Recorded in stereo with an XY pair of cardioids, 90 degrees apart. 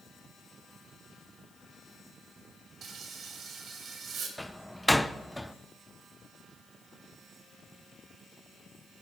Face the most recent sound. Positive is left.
turn(degrees=5)